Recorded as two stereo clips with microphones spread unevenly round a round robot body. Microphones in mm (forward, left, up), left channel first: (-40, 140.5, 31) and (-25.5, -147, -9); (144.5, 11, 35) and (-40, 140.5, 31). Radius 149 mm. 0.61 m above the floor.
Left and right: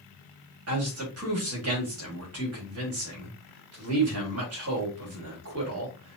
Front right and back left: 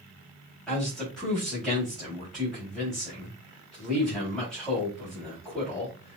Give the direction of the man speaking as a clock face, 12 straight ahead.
4 o'clock.